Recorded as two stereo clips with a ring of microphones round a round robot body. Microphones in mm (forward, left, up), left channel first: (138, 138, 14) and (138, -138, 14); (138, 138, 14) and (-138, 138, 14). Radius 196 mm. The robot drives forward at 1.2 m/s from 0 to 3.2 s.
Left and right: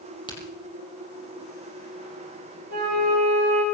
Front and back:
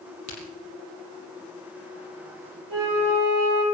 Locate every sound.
0.3 s a crack: 15° left, 7 m
2.7 s a flute: 145° right, 6.5 m